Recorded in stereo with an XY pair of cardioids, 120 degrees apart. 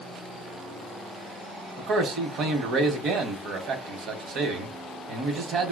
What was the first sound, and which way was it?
A man speaking, 60° right.